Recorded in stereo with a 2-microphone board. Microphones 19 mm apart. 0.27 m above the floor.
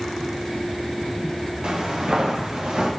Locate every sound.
1.6 s footsteps: 65° right (ahead or behind), 5.5 m; by 2.9 s 75° right (ahead or behind), 6 m